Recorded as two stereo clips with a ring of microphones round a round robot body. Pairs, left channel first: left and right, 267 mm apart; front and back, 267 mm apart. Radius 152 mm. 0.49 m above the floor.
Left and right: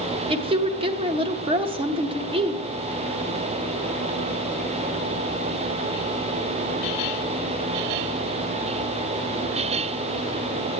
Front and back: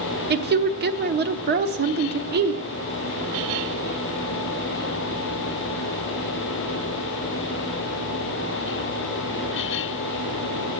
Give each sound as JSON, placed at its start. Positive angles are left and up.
{"t": 0.3, "sound": "a woman speaking", "azimuth_deg": -150, "distance_m": 0.9}